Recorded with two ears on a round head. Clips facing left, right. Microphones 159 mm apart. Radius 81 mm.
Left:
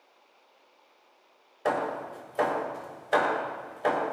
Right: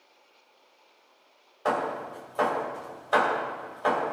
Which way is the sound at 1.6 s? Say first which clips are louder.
Even; 20° left (ahead or behind).